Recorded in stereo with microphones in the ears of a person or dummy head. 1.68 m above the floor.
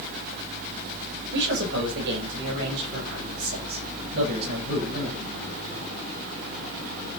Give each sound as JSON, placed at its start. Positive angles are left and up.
{"t": 1.3, "sound": "a man speaking", "side_deg": -70, "distance_m": 8.0}